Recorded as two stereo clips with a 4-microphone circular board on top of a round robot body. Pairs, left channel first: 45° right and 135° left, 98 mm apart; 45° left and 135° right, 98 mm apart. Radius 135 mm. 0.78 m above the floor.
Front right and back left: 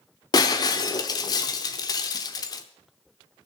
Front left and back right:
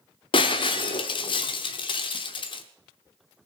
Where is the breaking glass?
5° left, 0.8 m.